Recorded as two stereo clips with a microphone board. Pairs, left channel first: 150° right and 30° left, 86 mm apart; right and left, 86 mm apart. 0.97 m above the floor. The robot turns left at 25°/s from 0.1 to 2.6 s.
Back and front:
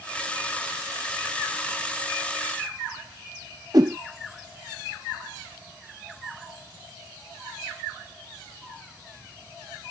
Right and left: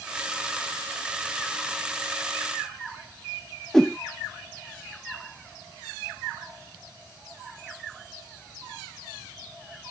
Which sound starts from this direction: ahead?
A whoosh, at 3.7 s.